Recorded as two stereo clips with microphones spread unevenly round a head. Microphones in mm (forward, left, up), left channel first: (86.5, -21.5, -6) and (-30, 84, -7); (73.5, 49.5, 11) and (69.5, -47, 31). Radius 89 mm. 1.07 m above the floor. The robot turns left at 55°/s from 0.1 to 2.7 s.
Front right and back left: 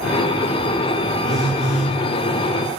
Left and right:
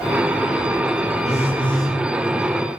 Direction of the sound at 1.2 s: 125° right.